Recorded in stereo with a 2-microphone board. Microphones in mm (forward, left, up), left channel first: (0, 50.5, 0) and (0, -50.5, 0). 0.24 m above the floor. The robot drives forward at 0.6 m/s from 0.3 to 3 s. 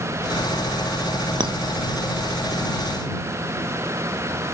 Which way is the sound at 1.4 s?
50° right (ahead or behind).